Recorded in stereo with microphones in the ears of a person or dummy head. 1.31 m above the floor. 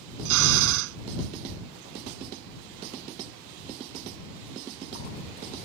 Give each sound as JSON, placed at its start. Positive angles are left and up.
{"t": 0.2, "sound": "a drill", "side_deg": -85}